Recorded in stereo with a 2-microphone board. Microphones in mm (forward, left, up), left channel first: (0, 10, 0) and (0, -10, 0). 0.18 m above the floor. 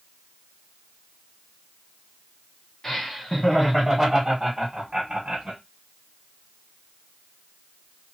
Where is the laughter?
30° left (ahead or behind), 1.5 m; by 5.6 s 35° right (ahead or behind), 1.5 m.